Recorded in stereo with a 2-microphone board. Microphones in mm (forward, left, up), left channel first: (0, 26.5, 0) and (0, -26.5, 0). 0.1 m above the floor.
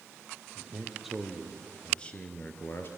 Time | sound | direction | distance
0.6 | a man speaking | 10° right (ahead or behind) | 3 m